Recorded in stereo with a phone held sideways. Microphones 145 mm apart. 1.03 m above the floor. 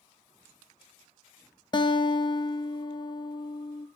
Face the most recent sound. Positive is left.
turn(degrees=30)  # may be behind; listen again after turning